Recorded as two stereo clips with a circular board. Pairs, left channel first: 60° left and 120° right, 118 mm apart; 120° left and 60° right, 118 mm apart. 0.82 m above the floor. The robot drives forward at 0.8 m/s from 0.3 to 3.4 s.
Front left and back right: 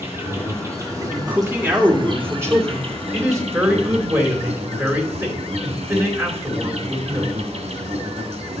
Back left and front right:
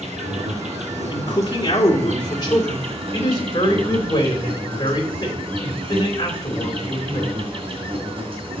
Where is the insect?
50° right, 3 m; by 8.6 s 100° right, 2.5 m.